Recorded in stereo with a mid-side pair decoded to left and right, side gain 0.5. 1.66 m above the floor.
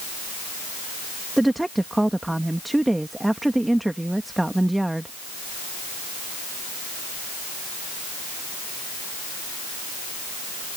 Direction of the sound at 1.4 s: 10° right.